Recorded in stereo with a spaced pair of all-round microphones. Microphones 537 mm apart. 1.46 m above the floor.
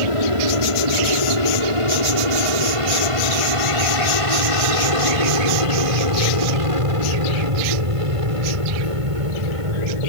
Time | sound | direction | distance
0.0 | an aircraft | 70° right (ahead or behind) | ?